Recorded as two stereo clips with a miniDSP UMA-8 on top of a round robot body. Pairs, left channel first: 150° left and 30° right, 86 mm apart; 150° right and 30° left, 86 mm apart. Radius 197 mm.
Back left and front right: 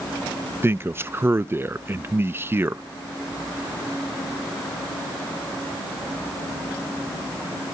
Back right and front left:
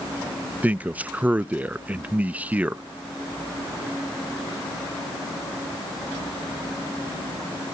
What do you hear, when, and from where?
0.6 s a man speaking: 20° right, 0.6 m